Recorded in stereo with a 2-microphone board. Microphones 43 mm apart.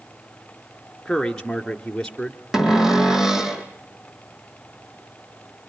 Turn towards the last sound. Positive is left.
turn(degrees=-10)  # may be behind; listen again after turning